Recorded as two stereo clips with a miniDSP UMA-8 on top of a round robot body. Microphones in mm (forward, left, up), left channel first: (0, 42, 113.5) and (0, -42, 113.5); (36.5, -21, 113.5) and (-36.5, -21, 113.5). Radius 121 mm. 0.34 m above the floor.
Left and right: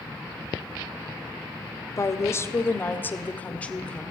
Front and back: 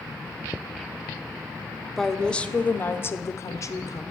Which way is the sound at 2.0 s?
85° left.